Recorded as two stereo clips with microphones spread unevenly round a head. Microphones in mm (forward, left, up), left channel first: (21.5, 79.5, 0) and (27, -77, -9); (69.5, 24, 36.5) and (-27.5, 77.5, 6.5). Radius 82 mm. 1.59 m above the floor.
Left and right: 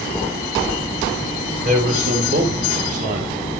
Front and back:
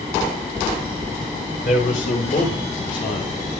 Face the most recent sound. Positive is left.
turn(degrees=-50)